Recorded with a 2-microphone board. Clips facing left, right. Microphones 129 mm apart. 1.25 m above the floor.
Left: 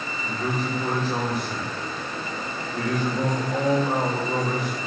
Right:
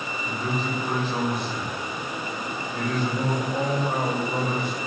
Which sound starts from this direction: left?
A man speaking, at 0.2 s.